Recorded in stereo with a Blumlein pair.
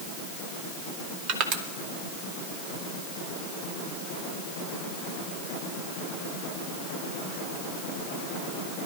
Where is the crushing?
40° right, 2 m.